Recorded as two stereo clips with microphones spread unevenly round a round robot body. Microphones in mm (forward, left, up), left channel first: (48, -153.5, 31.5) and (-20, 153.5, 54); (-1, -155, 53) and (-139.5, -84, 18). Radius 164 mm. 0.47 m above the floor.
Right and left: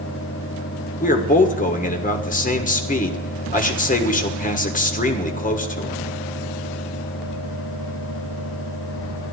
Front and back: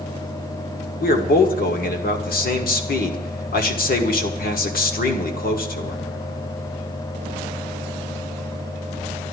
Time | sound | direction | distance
1.0 | a man speaking | 25° right | 1.6 m